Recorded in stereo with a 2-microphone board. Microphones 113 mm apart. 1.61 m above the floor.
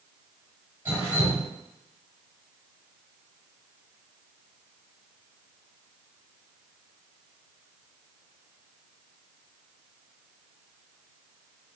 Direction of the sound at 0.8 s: 20° right (ahead or behind).